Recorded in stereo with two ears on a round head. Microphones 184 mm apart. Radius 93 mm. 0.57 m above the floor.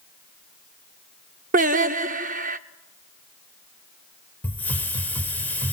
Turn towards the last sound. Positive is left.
turn(degrees=10)  # may be behind; listen again after turning